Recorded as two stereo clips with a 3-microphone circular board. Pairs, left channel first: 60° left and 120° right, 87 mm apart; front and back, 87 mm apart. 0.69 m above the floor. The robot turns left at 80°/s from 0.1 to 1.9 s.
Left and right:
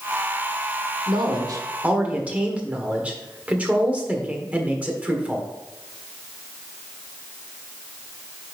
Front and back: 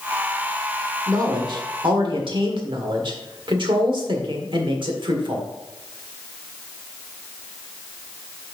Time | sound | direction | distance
1.1 | a man speaking | 125° right | 1.5 m